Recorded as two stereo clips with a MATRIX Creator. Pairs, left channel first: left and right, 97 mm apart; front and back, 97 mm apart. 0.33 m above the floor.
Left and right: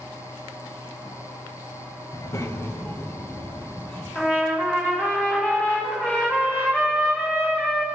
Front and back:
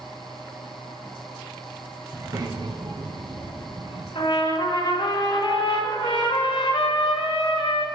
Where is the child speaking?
125° left, 1.0 m; by 4.0 s 165° left, 2.5 m.